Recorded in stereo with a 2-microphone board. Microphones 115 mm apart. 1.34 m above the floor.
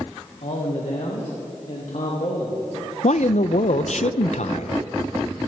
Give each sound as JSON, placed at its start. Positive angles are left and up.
{"t": 0.4, "sound": "a man speaking", "side_deg": 60, "distance_m": 1.5}
{"t": 3.0, "sound": "a man speaking", "side_deg": 70, "distance_m": 0.5}